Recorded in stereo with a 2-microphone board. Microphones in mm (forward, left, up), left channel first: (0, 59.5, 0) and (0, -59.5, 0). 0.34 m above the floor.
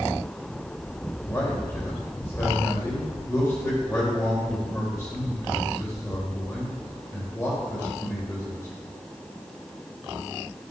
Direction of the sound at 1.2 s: 25° left (ahead or behind).